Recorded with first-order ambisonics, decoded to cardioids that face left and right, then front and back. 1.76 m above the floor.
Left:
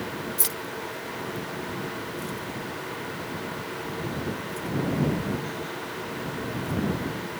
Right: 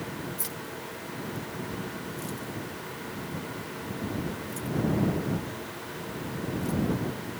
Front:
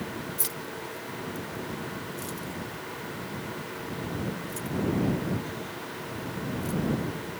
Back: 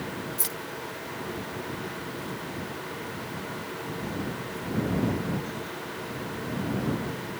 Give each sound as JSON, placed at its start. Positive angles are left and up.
{"t": 0.4, "sound": "keys jangling", "azimuth_deg": 95}